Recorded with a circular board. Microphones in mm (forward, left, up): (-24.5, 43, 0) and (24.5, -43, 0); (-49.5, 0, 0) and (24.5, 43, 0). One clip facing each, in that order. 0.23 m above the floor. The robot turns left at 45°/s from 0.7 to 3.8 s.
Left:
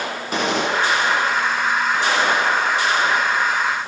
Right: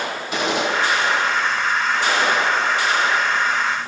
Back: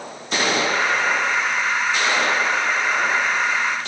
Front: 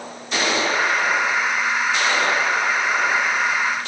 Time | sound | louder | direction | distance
0.3 | a gunshot | left 1 dB, even | 165° left | 8.5 m